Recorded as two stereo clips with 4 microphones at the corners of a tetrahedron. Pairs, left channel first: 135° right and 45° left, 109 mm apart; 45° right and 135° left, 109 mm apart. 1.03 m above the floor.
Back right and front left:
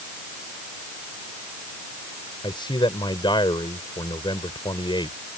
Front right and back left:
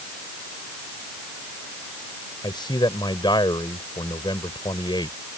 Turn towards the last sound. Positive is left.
turn(degrees=-90)